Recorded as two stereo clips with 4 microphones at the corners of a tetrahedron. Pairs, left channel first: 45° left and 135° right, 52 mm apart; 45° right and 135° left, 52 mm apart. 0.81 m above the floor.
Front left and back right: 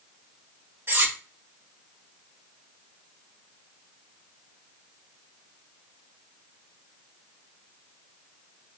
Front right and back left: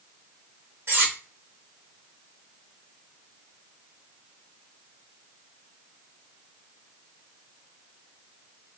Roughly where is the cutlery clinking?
Behind.